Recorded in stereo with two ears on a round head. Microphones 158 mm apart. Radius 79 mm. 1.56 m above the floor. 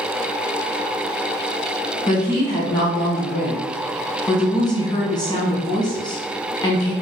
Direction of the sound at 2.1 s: 25° left (ahead or behind).